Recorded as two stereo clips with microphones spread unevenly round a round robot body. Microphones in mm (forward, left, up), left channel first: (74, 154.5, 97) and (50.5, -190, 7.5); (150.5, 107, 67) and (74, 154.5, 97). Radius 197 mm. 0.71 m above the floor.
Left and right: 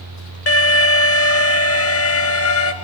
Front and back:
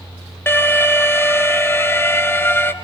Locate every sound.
0.5 s an alarm: 30° left, 2.5 m